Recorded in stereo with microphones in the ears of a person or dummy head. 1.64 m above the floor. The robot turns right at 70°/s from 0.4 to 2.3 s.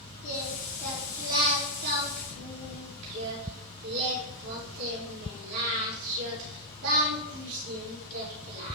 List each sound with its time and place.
0.2 s singing: 140° left, 5 m; by 8.8 s 90° right, 5 m